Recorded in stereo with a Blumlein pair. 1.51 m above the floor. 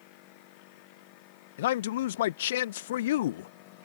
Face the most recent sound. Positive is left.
turn(degrees=55)